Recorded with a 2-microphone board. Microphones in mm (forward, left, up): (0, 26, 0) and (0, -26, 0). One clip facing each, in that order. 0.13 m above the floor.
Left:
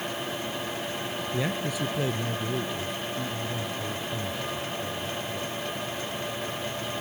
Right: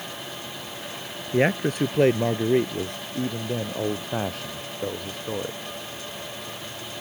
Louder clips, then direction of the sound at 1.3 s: Right 10 dB; 50° right (ahead or behind).